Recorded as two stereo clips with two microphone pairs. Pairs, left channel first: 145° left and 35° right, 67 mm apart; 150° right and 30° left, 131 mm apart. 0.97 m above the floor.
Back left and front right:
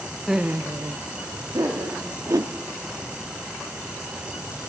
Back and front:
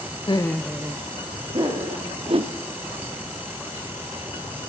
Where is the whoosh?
10° right, 0.7 m.